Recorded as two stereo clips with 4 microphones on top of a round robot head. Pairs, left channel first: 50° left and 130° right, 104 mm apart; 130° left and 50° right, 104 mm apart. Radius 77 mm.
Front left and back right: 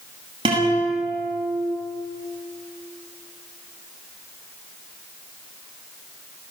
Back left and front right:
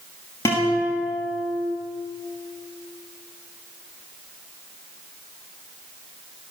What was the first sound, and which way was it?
A guitar, 170° right.